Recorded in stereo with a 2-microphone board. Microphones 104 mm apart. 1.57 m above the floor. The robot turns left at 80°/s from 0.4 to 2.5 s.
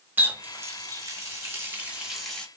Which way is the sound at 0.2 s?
15° right (ahead or behind).